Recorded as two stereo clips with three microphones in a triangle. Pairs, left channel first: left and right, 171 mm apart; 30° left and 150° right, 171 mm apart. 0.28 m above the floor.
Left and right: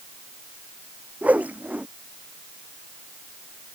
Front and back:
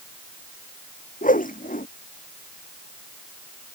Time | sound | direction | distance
1.2 | a whoosh | 10° right | ?